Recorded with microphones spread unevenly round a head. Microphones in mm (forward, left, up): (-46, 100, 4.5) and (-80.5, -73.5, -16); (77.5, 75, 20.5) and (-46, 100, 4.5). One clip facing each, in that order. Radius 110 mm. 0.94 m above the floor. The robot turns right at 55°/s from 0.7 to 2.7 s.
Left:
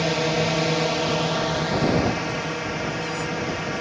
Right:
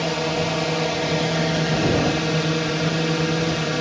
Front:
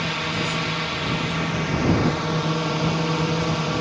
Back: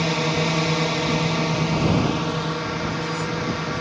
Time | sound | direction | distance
0.0 | a drone | 165° left | ?